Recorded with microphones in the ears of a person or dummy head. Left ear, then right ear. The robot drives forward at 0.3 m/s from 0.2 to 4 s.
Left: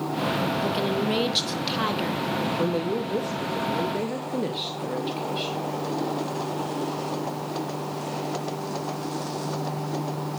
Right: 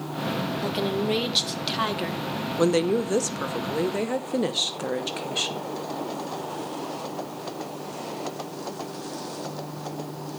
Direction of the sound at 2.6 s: 65° right (ahead or behind).